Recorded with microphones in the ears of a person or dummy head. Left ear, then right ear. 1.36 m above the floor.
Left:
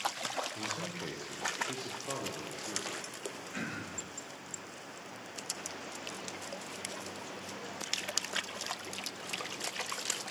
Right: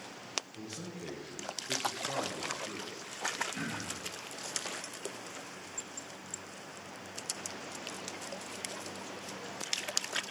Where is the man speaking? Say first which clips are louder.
Left 6 dB; 60° left (ahead or behind), 0.9 m; by 3.0 s 5° right (ahead or behind), 1.4 m.